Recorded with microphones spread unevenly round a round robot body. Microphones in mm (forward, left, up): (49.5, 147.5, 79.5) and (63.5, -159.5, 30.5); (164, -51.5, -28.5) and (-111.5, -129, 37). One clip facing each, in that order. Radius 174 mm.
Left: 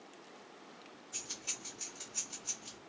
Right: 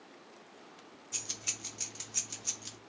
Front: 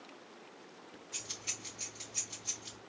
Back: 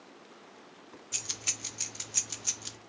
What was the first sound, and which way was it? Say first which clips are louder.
Keys jangling: right 2 dB, back 2 dB; 140° right.